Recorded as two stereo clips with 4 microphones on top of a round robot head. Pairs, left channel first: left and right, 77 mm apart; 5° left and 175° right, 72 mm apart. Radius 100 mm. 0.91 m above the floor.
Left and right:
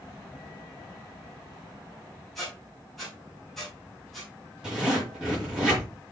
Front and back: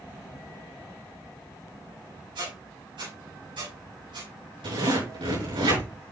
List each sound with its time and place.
2.4 s a squeak: 175° left, 5 m
4.6 s a zipper: 170° right, 5.5 m